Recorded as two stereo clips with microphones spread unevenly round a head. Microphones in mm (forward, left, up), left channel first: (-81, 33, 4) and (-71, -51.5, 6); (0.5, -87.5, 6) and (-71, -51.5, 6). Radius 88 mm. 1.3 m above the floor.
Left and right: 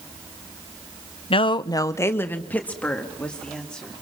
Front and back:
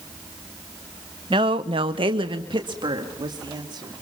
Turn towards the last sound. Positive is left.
turn(degrees=180)